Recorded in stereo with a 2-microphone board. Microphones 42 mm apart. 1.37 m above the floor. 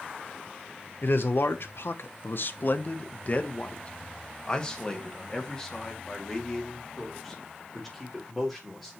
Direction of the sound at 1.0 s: 65° left (ahead or behind).